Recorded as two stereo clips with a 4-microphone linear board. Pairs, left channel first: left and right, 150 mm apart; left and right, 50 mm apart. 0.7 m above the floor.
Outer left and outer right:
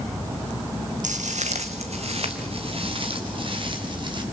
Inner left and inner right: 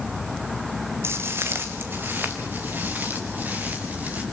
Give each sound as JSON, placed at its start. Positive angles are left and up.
{"t": 1.0, "sound": "footsteps", "side_deg": -60, "distance_m": 1.7}